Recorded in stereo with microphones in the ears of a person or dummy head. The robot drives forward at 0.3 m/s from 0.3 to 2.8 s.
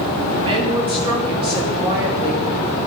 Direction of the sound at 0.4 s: 30° right (ahead or behind).